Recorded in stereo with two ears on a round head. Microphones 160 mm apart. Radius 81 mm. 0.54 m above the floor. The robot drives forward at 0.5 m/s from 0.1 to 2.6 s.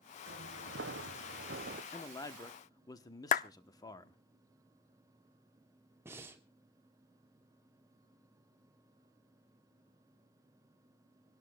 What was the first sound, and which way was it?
Footsteps, 65° right (ahead or behind).